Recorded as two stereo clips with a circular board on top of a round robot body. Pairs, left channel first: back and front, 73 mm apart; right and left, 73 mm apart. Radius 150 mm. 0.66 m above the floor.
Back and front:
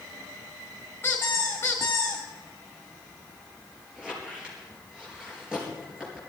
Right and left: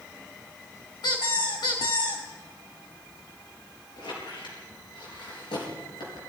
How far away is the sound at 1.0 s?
About 3 m.